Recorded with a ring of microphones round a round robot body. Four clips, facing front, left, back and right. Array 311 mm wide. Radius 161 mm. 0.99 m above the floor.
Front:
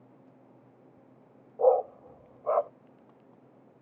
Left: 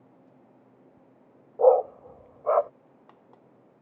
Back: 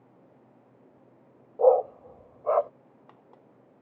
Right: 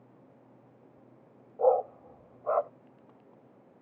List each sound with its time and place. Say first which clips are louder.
1.6 s a dog barking: left 6 dB, back 3 dB; 115° left